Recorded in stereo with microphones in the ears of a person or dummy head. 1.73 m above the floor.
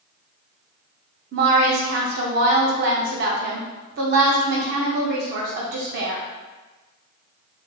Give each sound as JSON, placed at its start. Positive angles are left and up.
{"t": 1.3, "sound": "a woman speaking", "side_deg": -55, "distance_m": 0.6}